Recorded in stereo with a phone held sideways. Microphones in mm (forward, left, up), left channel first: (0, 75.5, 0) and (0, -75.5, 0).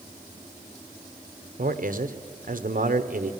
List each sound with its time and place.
1.6 s a man speaking: 65° right (ahead or behind), 1.0 m